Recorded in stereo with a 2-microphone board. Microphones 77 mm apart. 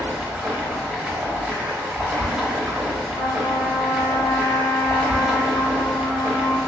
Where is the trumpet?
60° left (ahead or behind), 1.8 m.